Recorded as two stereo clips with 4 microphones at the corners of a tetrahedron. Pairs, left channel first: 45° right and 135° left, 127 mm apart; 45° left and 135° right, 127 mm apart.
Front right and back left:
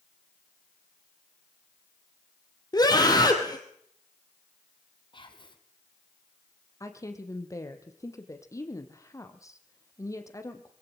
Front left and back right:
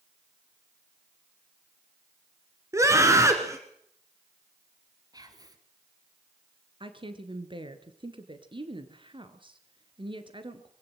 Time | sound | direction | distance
2.7 | a scream | 80° right | 2.0 m
5.1 | whispering | 85° right | 2.5 m
6.8 | a woman speaking | 100° right | 2.5 m